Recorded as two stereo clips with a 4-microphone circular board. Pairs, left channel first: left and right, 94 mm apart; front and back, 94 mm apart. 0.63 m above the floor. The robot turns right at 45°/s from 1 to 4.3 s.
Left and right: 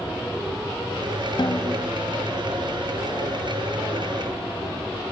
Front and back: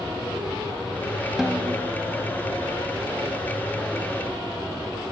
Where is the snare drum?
95° left, 0.8 m; by 1.9 s 120° left, 0.8 m.